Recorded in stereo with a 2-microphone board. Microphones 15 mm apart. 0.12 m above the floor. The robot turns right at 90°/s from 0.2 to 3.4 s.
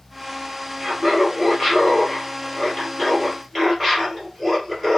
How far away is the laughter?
About 1.9 m.